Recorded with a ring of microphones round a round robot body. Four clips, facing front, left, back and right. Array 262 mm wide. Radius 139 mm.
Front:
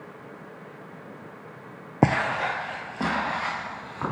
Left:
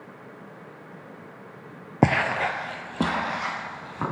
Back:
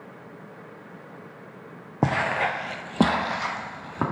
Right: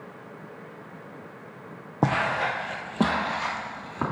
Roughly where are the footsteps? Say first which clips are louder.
Left 2 dB, front 1 dB; ahead left.